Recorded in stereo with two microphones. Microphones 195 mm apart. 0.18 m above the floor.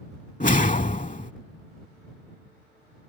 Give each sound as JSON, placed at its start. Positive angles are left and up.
{"t": 0.4, "sound": "a whoosh", "side_deg": 45}